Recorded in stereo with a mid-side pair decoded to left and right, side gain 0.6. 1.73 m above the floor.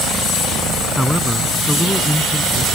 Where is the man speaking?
10° left.